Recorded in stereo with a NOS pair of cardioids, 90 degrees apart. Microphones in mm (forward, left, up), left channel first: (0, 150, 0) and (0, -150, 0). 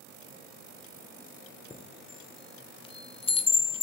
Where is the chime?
20° left, 0.5 m.